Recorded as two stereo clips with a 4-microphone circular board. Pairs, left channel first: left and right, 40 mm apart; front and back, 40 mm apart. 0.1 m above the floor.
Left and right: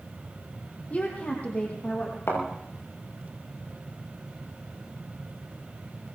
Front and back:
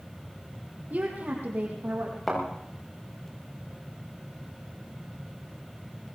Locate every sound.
0.9 s a woman speaking: 140° left, 3.5 m; by 2.2 s 145° left, 5 m
2.3 s a thud: 90° left, 8 m